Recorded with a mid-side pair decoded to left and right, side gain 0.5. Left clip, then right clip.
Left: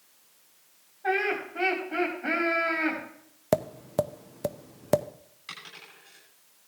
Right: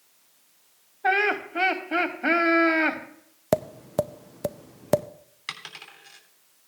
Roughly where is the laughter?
Ahead right.